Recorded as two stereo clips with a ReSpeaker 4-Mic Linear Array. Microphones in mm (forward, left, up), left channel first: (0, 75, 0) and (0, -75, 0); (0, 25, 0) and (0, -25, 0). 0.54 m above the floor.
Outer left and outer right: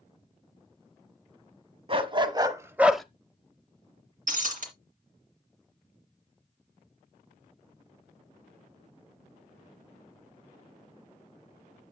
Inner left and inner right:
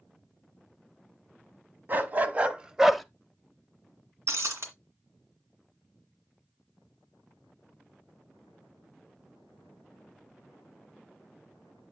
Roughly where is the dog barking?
Right.